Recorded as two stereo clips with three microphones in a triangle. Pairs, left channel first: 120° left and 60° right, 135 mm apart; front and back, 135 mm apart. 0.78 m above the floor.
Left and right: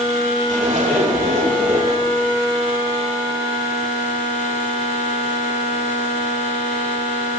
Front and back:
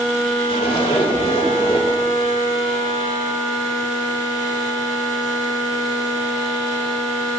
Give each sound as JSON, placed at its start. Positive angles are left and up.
{"t": 0.5, "sound": "a zipper", "azimuth_deg": -45, "distance_m": 2.5}